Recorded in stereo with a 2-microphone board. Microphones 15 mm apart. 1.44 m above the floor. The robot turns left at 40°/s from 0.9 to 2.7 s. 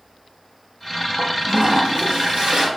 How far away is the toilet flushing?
About 0.6 m.